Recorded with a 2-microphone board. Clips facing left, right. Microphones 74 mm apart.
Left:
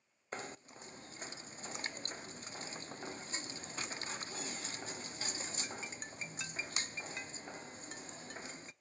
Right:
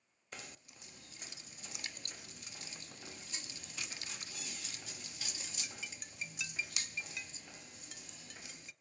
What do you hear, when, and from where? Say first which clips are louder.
0.3 s knocking: left 8 dB; 35° left (ahead or behind), 0.6 m